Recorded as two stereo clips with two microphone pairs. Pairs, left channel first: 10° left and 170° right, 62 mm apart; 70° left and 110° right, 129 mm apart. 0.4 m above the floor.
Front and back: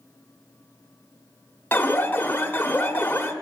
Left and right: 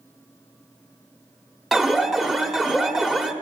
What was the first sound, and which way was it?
An alarm, 20° right.